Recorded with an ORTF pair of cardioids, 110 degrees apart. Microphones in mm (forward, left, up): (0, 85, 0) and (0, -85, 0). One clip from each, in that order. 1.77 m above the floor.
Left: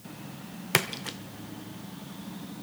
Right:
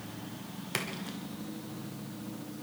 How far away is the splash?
About 0.8 m.